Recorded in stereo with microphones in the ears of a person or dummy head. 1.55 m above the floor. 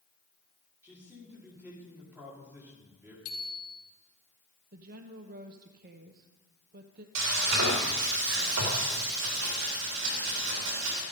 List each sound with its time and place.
0.8 s a man speaking: 10° right (ahead or behind), 4 m
3.2 s a bicycle bell: 70° left (ahead or behind), 2 m
4.7 s a woman speaking: 45° right (ahead or behind), 0.9 m
7.2 s frying: 85° right, 3.5 m